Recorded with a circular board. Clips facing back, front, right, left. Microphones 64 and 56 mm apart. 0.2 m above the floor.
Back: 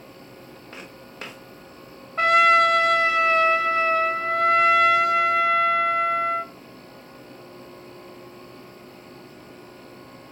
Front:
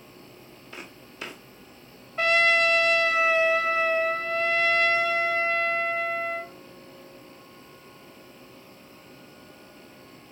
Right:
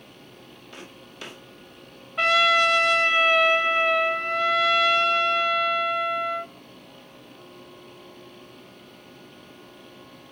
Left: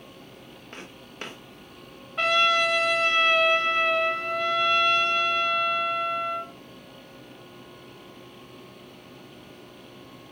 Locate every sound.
0.7 s footsteps: 140° left, 3 m
2.2 s a trumpet: straight behind, 1.4 m